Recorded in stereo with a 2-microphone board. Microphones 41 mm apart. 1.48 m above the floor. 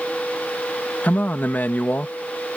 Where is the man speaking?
55° left (ahead or behind).